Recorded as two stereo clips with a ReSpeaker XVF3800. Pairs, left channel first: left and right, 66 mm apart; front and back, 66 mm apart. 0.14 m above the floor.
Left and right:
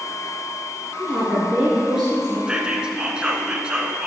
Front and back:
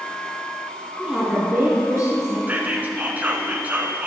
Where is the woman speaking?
135° right, 1.9 m; by 2.4 s 175° right, 2.5 m.